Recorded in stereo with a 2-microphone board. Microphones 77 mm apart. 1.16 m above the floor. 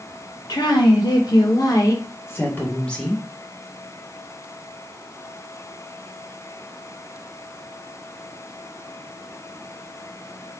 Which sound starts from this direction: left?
A woman speaking, at 0.5 s.